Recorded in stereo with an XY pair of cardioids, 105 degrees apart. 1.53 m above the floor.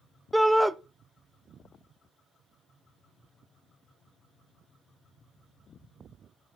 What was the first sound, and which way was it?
A shout, straight ahead.